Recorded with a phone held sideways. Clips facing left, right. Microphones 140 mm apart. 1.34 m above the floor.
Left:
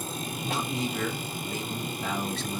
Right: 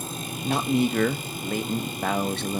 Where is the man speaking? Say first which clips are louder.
Right 9 dB; 65° right (ahead or behind), 0.9 m.